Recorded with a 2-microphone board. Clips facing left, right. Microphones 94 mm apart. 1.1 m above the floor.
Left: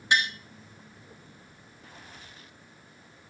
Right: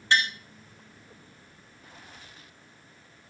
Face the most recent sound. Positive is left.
turn(degrees=15)  # may be behind; listen again after turning